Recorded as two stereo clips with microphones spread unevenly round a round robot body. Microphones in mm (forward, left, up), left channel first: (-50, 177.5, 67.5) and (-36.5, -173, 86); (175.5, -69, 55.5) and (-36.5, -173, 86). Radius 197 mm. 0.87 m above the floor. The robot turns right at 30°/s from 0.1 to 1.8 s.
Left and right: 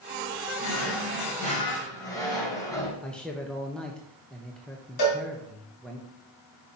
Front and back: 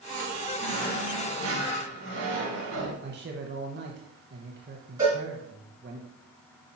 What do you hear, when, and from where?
0.6 s a drawer: 135° left, 2.5 m; by 2.9 s 175° left, 2.5 m
3.0 s a man speaking: 175° left, 1.1 m
5.0 s a cowbell: 130° left, 1.7 m